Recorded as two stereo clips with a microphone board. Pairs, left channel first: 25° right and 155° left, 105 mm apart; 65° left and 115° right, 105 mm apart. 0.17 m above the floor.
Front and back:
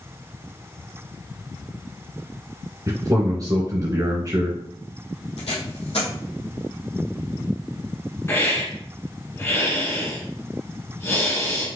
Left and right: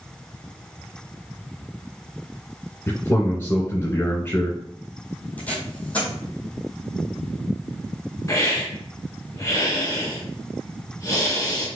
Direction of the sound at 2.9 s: 125° left.